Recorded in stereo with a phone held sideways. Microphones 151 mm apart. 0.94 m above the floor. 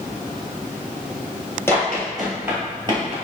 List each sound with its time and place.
1.7 s running footsteps: 15° left (ahead or behind), 1.3 m; by 3.1 s 40° right (ahead or behind), 1.3 m